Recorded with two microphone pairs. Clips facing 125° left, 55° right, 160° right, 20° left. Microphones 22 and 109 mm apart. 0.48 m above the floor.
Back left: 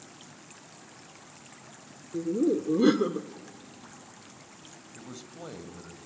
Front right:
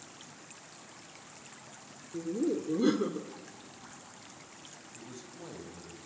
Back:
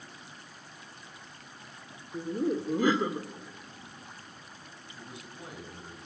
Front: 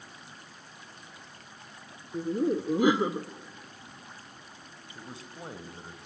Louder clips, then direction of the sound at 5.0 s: Back left 4 dB, front 3 dB; 75° left.